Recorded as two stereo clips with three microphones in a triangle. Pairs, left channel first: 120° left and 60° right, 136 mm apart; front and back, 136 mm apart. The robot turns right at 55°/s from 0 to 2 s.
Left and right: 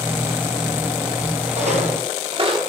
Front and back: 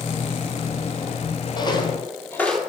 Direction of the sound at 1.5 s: 55° right.